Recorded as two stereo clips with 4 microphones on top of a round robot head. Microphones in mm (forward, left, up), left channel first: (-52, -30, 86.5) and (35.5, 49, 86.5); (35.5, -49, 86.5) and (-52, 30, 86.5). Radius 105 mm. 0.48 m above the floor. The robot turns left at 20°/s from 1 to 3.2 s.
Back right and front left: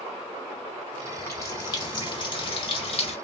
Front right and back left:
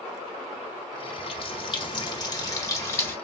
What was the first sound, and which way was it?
A running tap, 75° right.